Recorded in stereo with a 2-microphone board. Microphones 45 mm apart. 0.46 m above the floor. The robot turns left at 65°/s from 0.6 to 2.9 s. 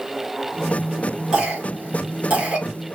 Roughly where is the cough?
Centre.